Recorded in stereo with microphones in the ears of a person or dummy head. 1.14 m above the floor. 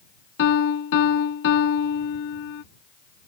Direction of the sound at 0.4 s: 70° left (ahead or behind).